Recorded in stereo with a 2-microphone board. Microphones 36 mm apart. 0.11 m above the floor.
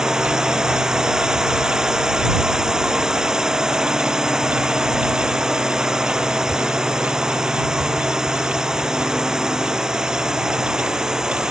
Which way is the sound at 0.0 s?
20° right (ahead or behind).